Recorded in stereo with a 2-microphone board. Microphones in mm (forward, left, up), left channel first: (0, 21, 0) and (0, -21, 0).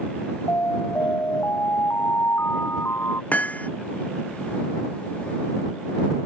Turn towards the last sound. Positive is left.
turn(degrees=40)  # may be behind; listen again after turning